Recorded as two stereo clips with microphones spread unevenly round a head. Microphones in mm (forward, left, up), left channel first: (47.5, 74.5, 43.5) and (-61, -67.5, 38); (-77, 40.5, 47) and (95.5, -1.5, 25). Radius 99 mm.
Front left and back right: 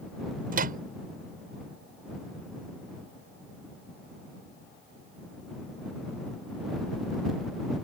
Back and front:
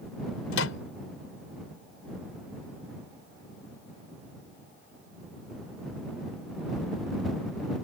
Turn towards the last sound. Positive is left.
turn(degrees=-170)